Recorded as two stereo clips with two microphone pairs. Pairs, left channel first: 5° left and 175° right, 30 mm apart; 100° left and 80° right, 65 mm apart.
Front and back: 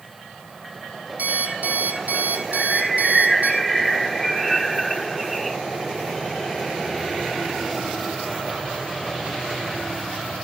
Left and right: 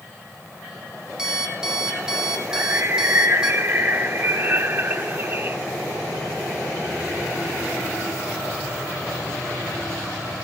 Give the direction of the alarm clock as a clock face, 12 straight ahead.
5 o'clock.